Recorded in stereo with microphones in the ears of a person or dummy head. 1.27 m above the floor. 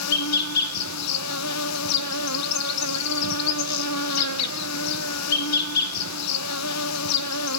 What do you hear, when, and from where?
0.0 s an insect: 85° left, 0.7 m